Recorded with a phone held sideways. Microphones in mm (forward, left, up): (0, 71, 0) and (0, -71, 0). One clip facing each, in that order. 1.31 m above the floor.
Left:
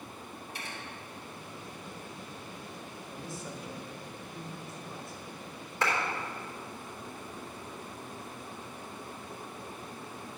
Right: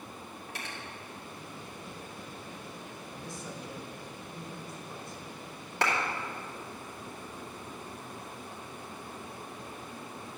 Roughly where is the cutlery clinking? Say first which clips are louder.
Right 1 dB; right.